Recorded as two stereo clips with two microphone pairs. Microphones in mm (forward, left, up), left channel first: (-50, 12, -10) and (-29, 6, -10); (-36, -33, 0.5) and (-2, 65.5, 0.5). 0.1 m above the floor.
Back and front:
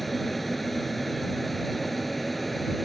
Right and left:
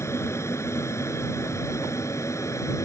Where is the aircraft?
120° right; by 2.9 s 115° right.